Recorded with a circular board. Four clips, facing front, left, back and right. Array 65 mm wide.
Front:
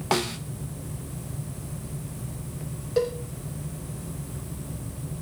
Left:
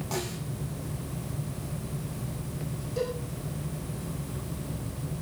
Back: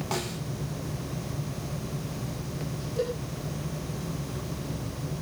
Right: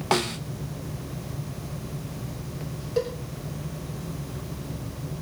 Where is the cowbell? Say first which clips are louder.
Right 4 dB, front 5 dB; 35° right, 6 m.